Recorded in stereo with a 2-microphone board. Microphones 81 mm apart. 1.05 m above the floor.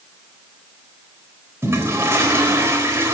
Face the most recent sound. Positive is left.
turn(degrees=-35)  # may be behind; listen again after turning